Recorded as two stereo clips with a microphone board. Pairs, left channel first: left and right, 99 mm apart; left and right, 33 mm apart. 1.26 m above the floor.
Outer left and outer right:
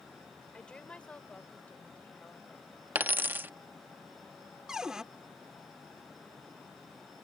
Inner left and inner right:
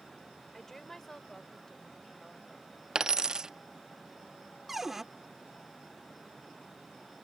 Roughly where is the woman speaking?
Centre.